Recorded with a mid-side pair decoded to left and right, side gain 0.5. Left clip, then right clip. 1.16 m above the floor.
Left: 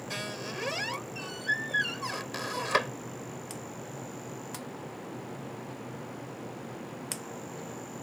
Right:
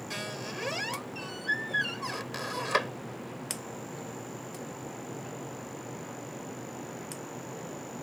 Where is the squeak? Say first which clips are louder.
Left 1 dB; 10° left.